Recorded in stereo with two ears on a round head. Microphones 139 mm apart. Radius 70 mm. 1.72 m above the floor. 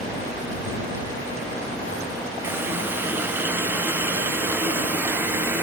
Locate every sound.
2.4 s a running tap: 15° right (ahead or behind)